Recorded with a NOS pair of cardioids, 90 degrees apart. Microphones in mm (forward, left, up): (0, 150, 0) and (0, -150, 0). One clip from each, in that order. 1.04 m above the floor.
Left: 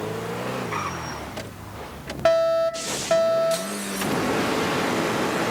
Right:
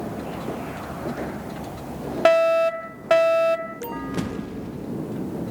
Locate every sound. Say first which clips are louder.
2.2 s a fire alarm: right 2 dB; 40° right